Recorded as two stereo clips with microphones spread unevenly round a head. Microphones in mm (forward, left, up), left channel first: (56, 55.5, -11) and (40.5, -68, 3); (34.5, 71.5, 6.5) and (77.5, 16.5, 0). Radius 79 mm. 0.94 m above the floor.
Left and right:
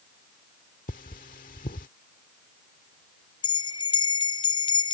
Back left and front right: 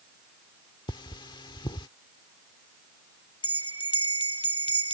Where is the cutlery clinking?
125° left.